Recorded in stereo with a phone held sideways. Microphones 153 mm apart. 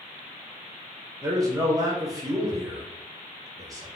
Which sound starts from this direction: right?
A man speaking, at 1.2 s.